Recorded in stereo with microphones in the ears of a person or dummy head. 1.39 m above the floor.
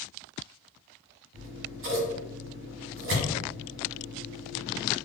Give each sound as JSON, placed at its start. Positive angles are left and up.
{"t": 1.3, "sound": "scissors", "side_deg": -65, "distance_m": 0.9}